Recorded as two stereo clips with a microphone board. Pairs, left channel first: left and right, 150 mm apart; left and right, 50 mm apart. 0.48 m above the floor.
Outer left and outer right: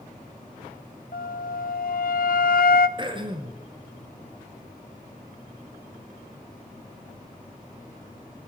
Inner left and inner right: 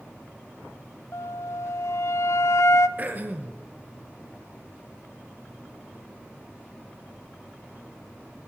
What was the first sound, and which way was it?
A flute, 75° left (ahead or behind).